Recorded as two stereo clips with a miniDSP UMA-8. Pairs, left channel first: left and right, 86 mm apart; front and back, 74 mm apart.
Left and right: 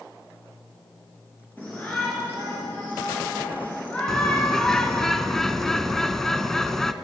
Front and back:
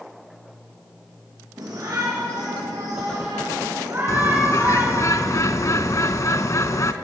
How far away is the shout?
About 3 m.